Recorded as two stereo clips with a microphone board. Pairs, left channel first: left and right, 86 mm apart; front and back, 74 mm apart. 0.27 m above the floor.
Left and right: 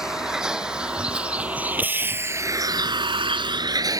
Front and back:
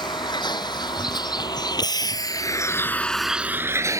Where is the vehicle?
5° right; by 4.0 s 135° right.